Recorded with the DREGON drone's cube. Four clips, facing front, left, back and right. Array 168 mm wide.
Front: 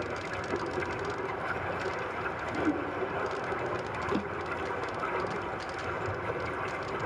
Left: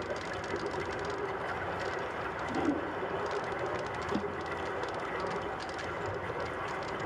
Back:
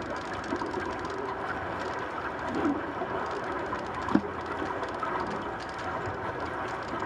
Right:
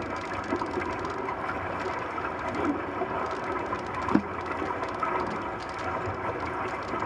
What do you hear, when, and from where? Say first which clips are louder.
0.0 s running water: right 4 dB, back 1 dB; 120° right, 6.5 m
2.5 s a whoosh: right 2 dB, back 2 dB; 175° right, 6.5 m
4.1 s a drawer: right 9 dB, back 6 dB; 125° right, 1.2 m